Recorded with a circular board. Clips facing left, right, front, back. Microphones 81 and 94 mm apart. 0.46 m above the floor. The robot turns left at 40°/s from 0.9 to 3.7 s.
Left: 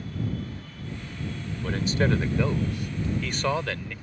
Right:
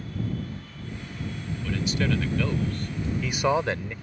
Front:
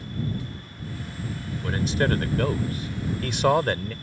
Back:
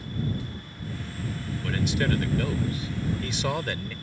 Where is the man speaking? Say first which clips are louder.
Left 2 dB, front 3 dB; 55° left; by 3.9 s 25° right.